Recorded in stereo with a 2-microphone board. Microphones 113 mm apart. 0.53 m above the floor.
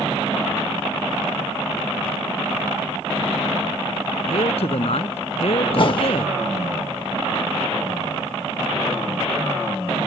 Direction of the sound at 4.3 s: 65° left (ahead or behind).